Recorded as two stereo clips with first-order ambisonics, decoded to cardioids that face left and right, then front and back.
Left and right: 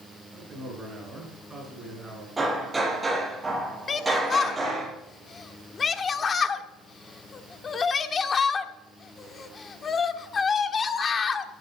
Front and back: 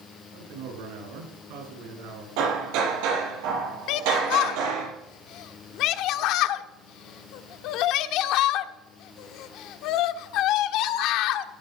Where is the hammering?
170° right, 6.5 m.